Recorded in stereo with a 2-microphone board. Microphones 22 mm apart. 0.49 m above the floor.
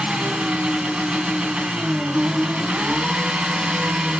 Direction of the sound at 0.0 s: 65° right (ahead or behind).